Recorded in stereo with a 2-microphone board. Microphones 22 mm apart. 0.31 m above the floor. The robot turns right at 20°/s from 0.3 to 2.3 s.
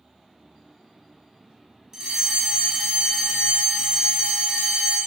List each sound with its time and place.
1.9 s a fire alarm: 30° right (ahead or behind), 4 m; by 5.0 s 25° right (ahead or behind), 4 m